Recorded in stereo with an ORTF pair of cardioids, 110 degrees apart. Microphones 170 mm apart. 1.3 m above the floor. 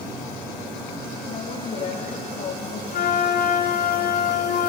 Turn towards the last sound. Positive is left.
turn(degrees=70)